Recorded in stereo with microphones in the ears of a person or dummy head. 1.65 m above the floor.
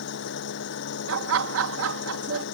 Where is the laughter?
80° right.